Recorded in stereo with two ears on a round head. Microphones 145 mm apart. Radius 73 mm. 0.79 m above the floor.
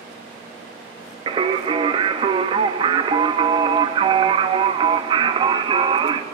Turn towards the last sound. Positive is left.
turn(degrees=-30)  # may be behind; listen again after turning